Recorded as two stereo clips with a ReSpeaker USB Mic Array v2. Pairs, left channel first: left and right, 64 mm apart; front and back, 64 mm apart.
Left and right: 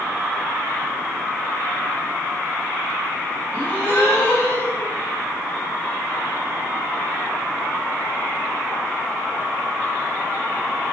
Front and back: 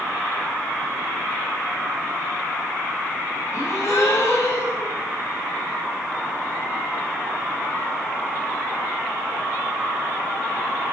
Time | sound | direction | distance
3.5 | a gasp | 25° left | 3.5 m